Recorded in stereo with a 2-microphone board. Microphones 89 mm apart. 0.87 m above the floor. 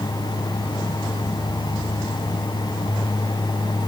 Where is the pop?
No pop in this recording.